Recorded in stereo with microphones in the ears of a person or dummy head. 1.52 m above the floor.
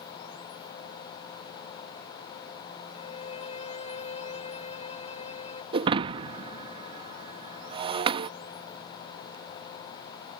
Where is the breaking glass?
25° right (ahead or behind).